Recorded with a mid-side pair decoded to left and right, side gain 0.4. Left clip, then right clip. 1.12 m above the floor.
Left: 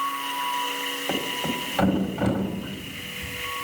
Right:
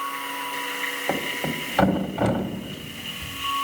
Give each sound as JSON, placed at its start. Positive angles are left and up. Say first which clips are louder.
{"t": 1.1, "sound": "a thud", "louder": "right 1 dB", "azimuth_deg": -40, "distance_m": 1.6}